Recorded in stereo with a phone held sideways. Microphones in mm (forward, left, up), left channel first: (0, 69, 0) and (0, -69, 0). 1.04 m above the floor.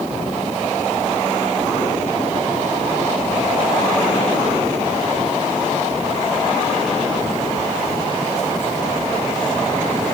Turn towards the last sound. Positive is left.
No sound to turn to.